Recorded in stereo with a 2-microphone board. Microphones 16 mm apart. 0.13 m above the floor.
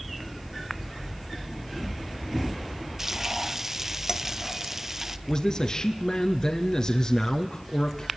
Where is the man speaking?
45° left (ahead or behind), 2 m.